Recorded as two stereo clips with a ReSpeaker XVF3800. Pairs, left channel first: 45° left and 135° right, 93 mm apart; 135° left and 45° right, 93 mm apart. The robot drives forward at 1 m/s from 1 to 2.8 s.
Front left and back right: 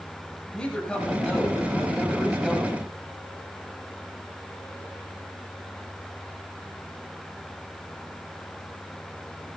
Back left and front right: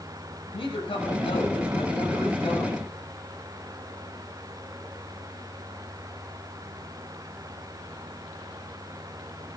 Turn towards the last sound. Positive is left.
turn(degrees=140)